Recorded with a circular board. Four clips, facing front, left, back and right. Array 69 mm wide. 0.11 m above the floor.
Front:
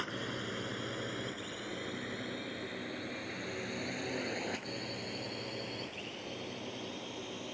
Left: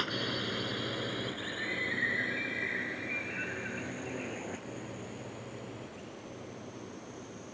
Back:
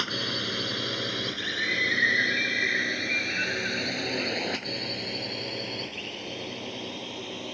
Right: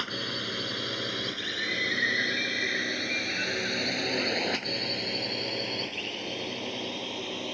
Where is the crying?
No crying in this recording.